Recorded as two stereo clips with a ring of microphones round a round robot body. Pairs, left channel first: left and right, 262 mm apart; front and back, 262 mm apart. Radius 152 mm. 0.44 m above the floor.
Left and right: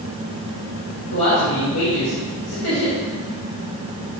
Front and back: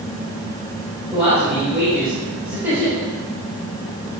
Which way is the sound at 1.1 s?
95° left.